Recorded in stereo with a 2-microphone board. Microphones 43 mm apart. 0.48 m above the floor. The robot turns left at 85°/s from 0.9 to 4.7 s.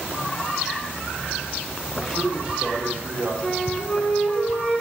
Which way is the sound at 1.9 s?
15° left.